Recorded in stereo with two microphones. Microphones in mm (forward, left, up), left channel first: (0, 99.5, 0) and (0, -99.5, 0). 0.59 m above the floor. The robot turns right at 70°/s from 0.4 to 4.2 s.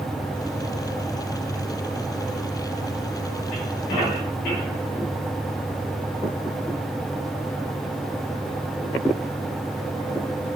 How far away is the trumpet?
No trumpet in this recording.